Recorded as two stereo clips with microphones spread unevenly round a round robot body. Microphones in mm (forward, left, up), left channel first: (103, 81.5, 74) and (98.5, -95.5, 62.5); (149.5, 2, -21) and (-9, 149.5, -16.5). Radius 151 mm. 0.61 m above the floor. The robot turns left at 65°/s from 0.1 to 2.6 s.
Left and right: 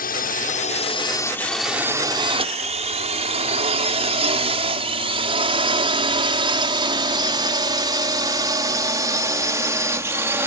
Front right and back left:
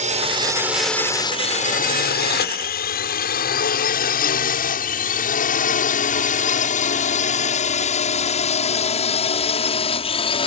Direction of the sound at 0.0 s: 95° left.